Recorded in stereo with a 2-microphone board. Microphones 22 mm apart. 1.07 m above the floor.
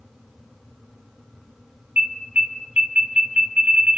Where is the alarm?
75° right (ahead or behind), 6 m.